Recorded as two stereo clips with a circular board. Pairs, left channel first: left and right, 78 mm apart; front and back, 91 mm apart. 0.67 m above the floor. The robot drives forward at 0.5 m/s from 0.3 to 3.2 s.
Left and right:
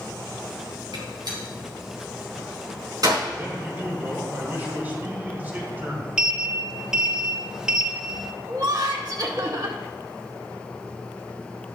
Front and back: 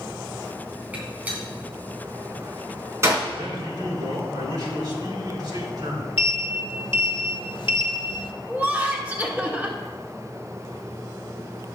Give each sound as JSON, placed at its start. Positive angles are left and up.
{"t": 0.9, "sound": "a gunshot", "azimuth_deg": -105, "distance_m": 3.0}
{"t": 3.3, "sound": "a man speaking", "azimuth_deg": -155, "distance_m": 2.5}
{"t": 6.2, "sound": "a sliding door", "azimuth_deg": -10, "distance_m": 0.7}
{"t": 8.5, "sound": "laughter", "azimuth_deg": -110, "distance_m": 1.7}